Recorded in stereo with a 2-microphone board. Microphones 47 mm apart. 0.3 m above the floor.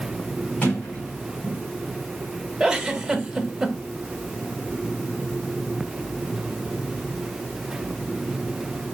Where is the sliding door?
35° left (ahead or behind), 3 m.